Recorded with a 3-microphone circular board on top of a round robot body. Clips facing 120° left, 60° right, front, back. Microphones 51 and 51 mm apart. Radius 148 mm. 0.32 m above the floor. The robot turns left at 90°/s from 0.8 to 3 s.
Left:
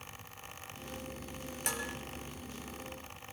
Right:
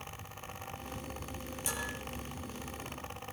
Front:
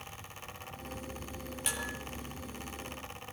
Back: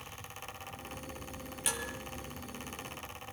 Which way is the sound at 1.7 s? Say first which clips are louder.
Left 1 dB, even; 95° left.